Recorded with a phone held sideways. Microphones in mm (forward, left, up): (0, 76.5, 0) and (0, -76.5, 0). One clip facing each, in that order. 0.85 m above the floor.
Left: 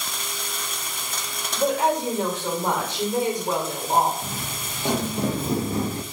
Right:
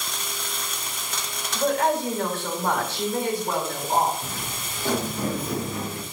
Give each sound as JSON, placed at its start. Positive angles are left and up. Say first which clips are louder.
{"t": 1.5, "sound": "a woman speaking", "louder": "left 1 dB", "side_deg": 20, "distance_m": 3.0}
{"t": 4.2, "sound": "footsteps", "louder": "left 1 dB", "side_deg": 15, "distance_m": 2.5}